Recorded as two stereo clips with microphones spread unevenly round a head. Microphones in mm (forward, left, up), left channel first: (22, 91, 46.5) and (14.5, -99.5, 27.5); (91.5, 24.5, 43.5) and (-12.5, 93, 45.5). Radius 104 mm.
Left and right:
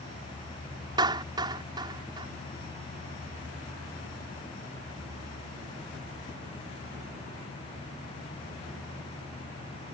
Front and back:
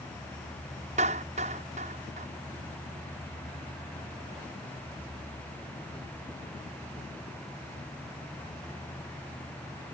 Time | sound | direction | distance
1.0 | a clap | 165° right | ?